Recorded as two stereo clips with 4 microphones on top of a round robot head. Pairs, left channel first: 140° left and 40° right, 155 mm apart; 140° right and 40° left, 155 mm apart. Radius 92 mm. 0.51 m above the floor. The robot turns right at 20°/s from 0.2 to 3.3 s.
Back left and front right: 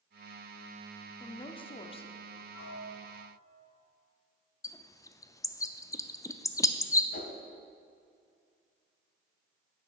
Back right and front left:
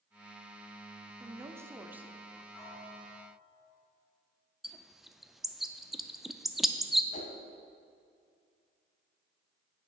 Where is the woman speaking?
100° left, 0.8 m; by 2.4 s 125° left, 0.8 m.